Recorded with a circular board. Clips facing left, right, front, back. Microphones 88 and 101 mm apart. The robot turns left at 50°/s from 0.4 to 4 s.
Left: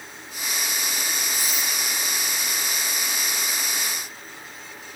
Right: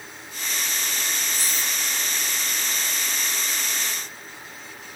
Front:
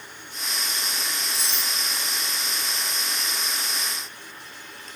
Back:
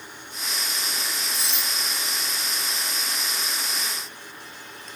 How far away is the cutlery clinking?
About 5 m.